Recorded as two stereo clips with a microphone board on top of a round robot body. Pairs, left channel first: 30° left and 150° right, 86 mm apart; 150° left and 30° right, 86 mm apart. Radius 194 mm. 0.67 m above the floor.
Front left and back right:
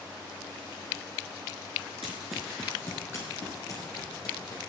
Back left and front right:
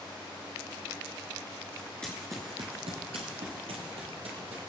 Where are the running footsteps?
135° right, 0.7 m; by 4.6 s 20° right, 2 m.